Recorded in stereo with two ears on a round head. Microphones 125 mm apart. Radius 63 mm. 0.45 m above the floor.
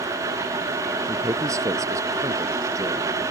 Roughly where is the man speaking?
Right.